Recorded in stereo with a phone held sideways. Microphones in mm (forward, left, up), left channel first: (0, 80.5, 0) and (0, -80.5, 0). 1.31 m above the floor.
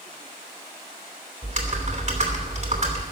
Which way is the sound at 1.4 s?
50° right (ahead or behind).